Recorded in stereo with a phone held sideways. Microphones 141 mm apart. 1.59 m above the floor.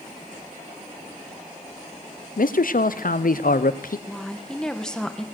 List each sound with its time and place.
2.4 s a man speaking: 80° left, 0.6 m
4.1 s a woman speaking: 5° left (ahead or behind), 0.9 m